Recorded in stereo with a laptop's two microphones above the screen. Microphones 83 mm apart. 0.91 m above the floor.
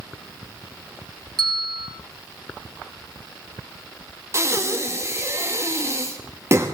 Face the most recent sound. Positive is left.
turn(degrees=-35)  # may be behind; listen again after turning